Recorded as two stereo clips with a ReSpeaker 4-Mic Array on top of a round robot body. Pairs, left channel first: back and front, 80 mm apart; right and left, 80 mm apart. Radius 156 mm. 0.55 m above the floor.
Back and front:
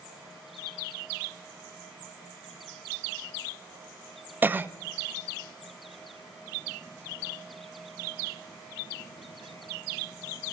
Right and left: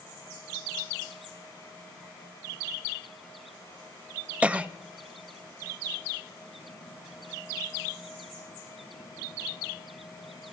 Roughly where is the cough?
Ahead left.